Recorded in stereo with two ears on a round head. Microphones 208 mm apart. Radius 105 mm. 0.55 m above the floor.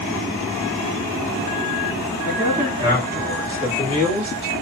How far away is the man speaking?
About 1.3 m.